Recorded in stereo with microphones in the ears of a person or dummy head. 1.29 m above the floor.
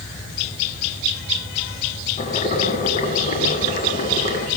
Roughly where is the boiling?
Left.